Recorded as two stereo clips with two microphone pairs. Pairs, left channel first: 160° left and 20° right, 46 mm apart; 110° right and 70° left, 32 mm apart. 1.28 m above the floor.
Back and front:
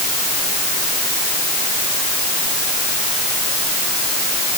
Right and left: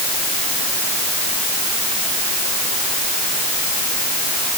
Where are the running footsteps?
I don't hear running footsteps.